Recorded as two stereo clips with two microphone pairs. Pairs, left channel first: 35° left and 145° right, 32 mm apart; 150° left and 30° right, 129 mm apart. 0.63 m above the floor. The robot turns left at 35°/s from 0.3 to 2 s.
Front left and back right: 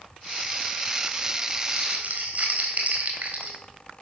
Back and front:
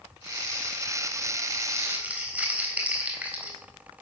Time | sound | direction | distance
1.7 | crumpling | 100° right | 4 m